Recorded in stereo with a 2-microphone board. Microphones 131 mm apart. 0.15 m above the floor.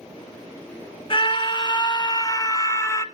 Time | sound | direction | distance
1.1 | a scream | 40° left (ahead or behind) | 1.8 m